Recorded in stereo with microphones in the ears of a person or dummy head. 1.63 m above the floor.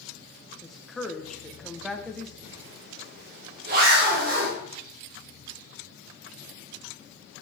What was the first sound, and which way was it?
A woman speaking, centre (ahead or behind).